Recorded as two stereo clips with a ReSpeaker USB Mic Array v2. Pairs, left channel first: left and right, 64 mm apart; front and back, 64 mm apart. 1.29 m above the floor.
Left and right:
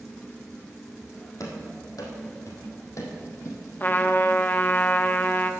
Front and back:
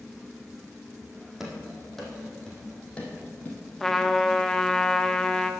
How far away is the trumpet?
About 0.8 m.